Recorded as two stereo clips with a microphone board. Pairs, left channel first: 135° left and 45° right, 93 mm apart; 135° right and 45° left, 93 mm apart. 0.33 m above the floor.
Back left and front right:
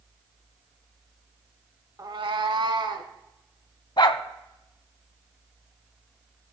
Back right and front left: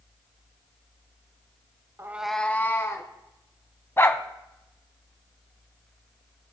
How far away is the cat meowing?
About 0.5 m.